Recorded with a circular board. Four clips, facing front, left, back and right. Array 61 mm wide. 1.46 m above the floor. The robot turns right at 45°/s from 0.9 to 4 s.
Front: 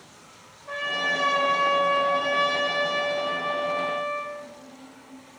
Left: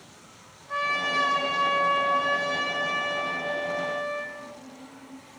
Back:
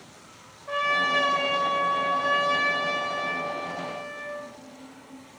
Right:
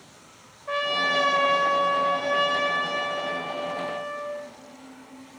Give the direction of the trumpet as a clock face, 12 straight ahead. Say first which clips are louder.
Right 2 dB, back 3 dB; 3 o'clock.